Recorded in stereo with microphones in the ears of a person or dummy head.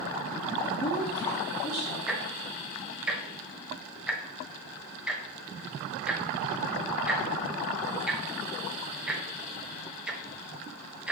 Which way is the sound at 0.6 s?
20° left (ahead or behind).